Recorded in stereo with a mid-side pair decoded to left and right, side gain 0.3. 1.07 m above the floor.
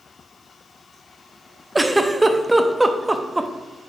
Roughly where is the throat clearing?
No throat clearing in this recording.